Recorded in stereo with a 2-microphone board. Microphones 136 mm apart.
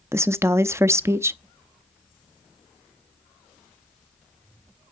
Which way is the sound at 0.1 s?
20° right (ahead or behind).